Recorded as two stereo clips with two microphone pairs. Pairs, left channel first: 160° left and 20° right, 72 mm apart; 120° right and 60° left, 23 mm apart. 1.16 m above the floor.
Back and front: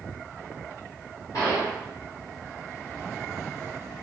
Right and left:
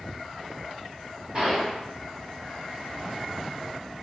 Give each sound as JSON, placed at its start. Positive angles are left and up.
{"t": 1.3, "sound": "a gunshot", "azimuth_deg": 125, "distance_m": 1.8}